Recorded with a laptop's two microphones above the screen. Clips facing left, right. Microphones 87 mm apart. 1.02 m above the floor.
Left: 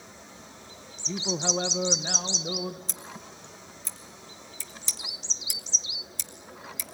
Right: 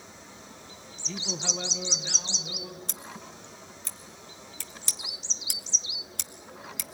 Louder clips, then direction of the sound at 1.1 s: Left 6 dB; 20° left (ahead or behind).